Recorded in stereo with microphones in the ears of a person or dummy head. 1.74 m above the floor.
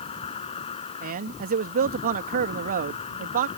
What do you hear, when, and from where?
0.0 s an insect: 35° left (ahead or behind)
1.0 s a man speaking: 50° right (ahead or behind)